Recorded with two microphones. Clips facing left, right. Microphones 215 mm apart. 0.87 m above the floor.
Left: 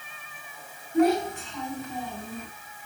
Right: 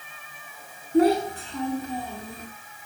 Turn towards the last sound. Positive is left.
turn(degrees=-45)  # may be behind; listen again after turning